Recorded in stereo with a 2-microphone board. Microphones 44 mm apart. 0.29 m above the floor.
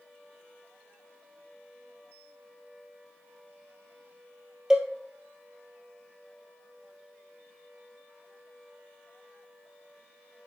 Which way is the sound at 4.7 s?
15° right (ahead or behind).